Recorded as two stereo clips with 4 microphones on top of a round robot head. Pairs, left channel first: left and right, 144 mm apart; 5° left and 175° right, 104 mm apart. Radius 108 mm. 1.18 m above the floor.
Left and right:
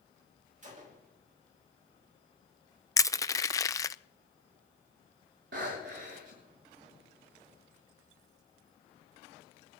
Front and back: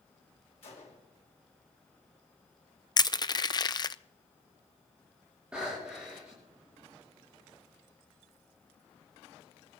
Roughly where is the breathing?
Right.